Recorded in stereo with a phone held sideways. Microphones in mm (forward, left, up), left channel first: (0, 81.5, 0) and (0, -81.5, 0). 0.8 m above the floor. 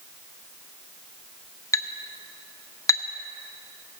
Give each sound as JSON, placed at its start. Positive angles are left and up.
{"t": 1.7, "sound": "a clink", "side_deg": 20, "distance_m": 0.6}